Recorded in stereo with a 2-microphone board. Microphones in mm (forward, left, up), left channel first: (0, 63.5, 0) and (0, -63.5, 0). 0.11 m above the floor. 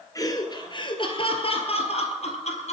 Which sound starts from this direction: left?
Laughter, at 0.1 s.